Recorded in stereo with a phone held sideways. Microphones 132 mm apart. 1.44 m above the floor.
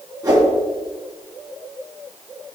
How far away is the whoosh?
About 3 m.